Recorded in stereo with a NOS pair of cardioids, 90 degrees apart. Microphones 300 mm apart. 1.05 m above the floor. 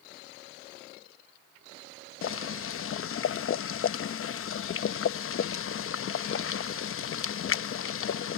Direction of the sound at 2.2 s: 45° left.